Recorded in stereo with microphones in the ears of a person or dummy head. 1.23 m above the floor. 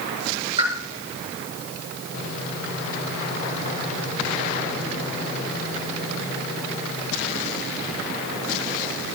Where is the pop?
30° right (ahead or behind), 5 m.